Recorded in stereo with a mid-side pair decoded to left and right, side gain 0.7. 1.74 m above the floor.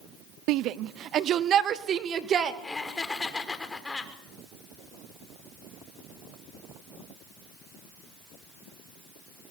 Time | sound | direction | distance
0.5 | a shout | 60° right | 0.7 m
2.6 | laughter | 15° left | 6 m